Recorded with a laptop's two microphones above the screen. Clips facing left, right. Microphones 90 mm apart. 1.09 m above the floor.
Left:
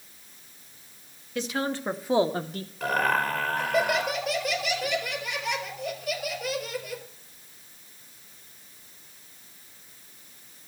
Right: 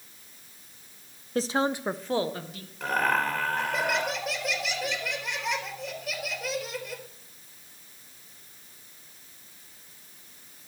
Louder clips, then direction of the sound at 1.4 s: Right 3 dB; 40° right (ahead or behind).